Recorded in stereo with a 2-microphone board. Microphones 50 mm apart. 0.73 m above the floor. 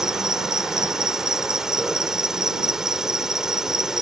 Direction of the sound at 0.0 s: 10° right (ahead or behind).